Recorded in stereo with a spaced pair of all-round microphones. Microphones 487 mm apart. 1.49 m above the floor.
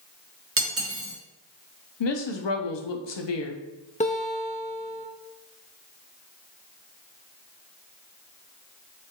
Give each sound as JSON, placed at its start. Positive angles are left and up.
{"t": 0.6, "sound": "cutlery clinking", "side_deg": -30, "distance_m": 0.7}
{"t": 2.0, "sound": "a woman speaking", "side_deg": 60, "distance_m": 0.5}
{"t": 4.0, "sound": "a guitar", "side_deg": 15, "distance_m": 0.6}